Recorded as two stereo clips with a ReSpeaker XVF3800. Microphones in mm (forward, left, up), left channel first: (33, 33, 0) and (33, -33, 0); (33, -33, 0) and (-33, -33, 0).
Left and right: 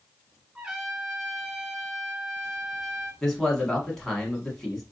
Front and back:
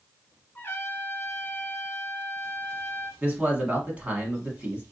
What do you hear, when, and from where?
0.6 s a trumpet: 25° right, 1.6 m
3.2 s a man speaking: 165° left, 1.1 m